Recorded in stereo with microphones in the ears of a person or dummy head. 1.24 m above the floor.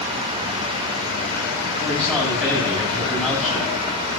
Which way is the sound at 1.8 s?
5° left (ahead or behind).